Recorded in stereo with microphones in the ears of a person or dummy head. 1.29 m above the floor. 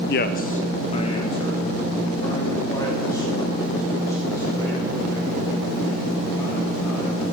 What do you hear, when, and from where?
0.1 s a man speaking: 50° left (ahead or behind), 0.5 m; by 7.2 s 10° left (ahead or behind), 7.5 m